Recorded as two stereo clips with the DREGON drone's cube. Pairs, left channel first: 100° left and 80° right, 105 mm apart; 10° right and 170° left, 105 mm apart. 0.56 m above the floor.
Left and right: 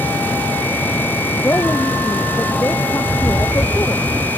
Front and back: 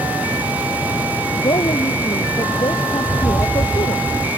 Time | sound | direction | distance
1.3 | a woman speaking | 30° left | ?
3.0 | a rattle | 150° right | ?